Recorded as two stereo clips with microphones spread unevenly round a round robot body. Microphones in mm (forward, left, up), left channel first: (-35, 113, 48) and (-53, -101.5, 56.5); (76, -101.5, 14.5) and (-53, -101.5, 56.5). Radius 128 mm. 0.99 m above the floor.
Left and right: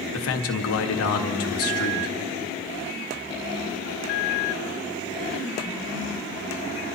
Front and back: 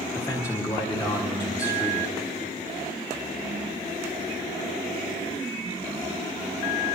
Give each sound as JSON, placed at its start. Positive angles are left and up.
{"t": 0.1, "sound": "a man speaking", "azimuth_deg": 70, "distance_m": 1.5}